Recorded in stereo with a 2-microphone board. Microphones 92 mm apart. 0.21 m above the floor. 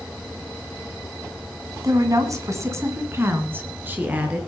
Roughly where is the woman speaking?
Right.